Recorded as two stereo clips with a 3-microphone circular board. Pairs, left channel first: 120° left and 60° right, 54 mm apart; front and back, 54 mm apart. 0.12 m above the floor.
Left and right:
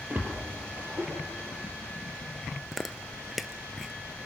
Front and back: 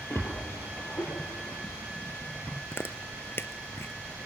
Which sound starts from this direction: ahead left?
Chewing, at 2.7 s.